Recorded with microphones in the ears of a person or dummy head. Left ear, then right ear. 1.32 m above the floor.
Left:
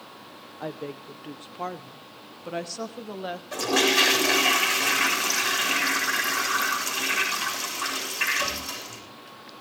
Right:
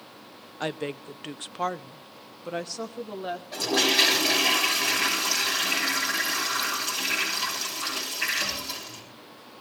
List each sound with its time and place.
0.6 s a woman speaking: 55° right (ahead or behind), 0.8 m; by 3.4 s 5° left (ahead or behind), 1.4 m
3.5 s a toilet flushing: 70° left (ahead or behind), 7 m